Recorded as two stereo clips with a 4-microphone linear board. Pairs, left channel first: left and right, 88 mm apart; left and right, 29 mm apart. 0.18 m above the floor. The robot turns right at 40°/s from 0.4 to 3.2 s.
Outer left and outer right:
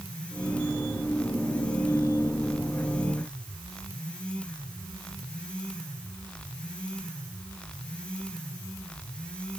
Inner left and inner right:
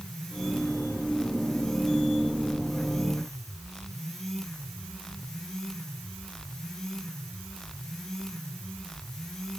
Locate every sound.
Only background noise.